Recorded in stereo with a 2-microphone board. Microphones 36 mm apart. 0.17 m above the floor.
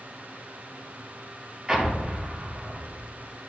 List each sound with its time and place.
1.7 s an explosion: 20° right (ahead or behind), 2 m